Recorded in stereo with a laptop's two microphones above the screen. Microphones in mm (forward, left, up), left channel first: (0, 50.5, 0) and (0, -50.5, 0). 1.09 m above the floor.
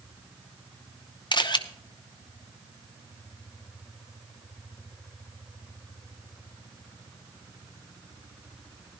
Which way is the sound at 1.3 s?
50° left (ahead or behind).